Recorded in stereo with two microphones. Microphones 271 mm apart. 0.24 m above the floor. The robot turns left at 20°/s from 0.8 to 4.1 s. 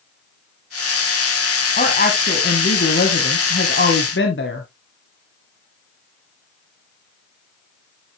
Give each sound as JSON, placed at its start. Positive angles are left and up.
{"t": 1.8, "sound": "a woman speaking", "azimuth_deg": 130, "distance_m": 1.4}